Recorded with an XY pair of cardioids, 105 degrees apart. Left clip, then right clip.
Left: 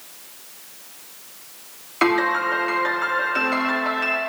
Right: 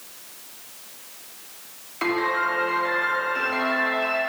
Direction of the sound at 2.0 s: 55° left.